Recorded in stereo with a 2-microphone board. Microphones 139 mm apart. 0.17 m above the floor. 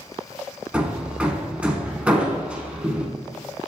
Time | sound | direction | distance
0.7 | hammering | 10° right (ahead or behind) | 1.5 m